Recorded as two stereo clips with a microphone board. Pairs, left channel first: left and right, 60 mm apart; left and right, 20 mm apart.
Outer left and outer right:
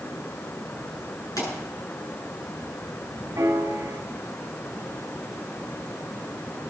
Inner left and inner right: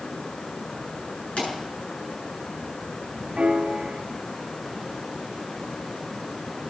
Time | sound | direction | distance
1.4 | a pop | 75° left (ahead or behind) | 7.5 m
3.4 | a piano | 65° right (ahead or behind) | 1.8 m